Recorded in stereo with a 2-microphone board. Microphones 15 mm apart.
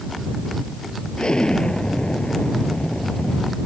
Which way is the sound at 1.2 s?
75° left (ahead or behind).